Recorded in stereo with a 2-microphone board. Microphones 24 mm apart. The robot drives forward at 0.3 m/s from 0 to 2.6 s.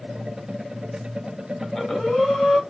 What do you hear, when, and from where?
1.6 s breathing: 25° left (ahead or behind), 1.3 m; by 2.6 s 30° left (ahead or behind), 1.1 m